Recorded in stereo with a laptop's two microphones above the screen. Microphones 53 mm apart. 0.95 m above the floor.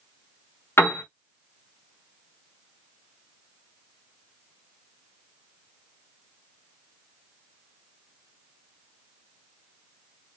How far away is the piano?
About 0.8 m.